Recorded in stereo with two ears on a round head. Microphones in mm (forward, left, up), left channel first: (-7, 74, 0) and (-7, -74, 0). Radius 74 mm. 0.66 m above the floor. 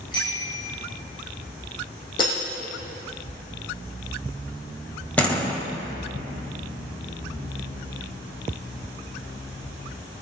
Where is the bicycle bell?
30° left (ahead or behind), 5.5 m.